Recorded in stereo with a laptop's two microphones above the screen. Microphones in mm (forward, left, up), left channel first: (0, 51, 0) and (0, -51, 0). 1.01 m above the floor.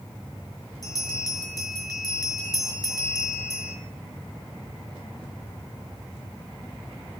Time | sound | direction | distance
0.8 | a bell | 35° left (ahead or behind) | 2.5 m